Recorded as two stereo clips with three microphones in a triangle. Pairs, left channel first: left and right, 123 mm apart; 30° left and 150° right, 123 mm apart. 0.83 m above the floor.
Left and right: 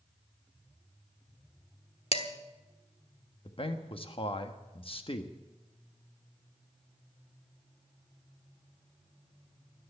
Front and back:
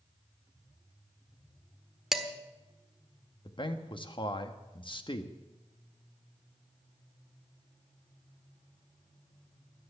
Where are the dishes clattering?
120° left, 1.3 m.